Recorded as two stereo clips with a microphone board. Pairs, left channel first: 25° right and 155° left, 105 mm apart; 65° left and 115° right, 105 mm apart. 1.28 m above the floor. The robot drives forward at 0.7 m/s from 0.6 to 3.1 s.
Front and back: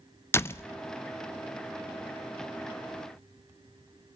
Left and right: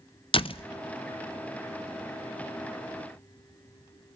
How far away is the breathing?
No breathing in this recording.